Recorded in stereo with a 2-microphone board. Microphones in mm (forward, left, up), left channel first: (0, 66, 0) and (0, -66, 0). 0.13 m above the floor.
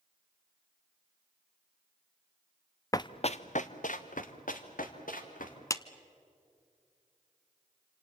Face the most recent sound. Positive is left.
turn(degrees=25)  # may be behind; listen again after turning